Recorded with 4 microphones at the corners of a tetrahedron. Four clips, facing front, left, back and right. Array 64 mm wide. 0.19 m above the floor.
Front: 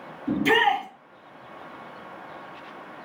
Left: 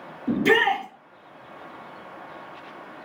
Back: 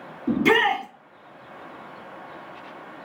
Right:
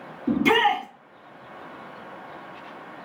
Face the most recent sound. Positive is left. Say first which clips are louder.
# even, back 1 dB
turn(degrees=-135)